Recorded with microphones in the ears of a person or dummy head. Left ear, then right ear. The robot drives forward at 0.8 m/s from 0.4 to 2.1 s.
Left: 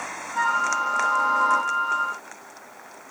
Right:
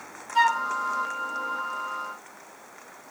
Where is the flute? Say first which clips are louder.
Right 1 dB; 75° right (ahead or behind), 0.6 m; by 0.7 s 55° right (ahead or behind), 0.7 m.